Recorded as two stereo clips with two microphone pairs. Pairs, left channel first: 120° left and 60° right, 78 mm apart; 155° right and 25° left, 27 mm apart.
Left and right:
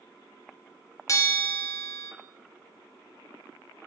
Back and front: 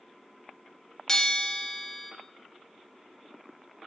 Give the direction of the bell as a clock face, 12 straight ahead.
7 o'clock.